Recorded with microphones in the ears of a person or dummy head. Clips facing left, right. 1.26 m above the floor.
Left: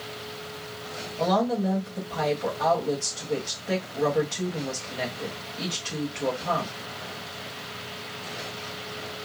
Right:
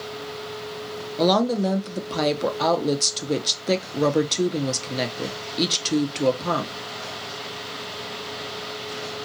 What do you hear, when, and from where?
1.2 s a woman speaking: 55° right (ahead or behind), 0.6 m